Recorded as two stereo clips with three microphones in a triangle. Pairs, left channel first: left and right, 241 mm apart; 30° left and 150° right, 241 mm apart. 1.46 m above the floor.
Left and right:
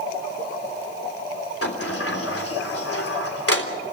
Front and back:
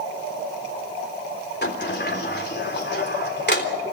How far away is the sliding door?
About 3.5 m.